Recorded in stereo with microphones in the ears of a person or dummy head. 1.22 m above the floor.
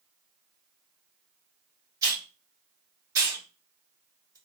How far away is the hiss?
About 1.1 m.